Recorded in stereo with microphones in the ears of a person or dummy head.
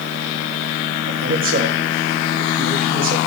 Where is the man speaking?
50° right (ahead or behind), 1.6 m.